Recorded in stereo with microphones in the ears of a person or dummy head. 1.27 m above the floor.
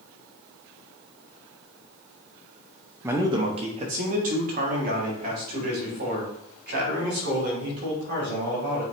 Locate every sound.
3.0 s a man speaking: 5° right (ahead or behind), 0.5 m; by 8.8 s 50° right (ahead or behind), 3 m